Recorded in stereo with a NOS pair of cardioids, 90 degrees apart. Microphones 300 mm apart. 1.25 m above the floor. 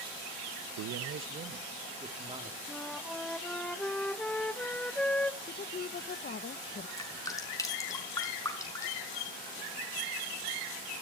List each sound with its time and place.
0.8 s a man speaking: 70° right, 0.9 m; by 2.6 s 15° right, 3 m
2.7 s a flute: 5° left, 1.0 m
5.4 s a woman speaking: 35° left, 0.9 m
7.0 s dripping: 10° left, 5 m